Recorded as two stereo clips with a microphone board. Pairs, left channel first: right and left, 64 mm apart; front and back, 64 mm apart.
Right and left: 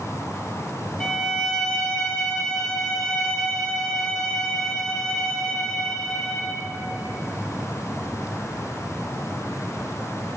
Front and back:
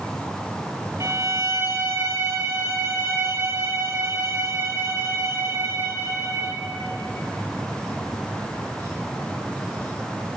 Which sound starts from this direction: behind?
A violin, at 1.0 s.